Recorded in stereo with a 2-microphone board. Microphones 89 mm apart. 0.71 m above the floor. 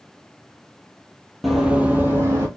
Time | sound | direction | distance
1.4 | running footsteps | centre (ahead or behind) | 0.7 m